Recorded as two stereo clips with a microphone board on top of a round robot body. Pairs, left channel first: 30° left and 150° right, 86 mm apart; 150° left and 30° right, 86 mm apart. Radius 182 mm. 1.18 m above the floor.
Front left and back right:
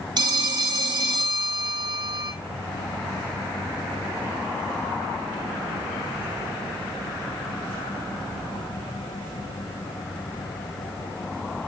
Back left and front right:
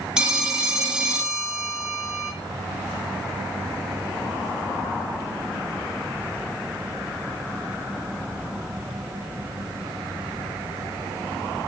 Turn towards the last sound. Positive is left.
turn(degrees=-110)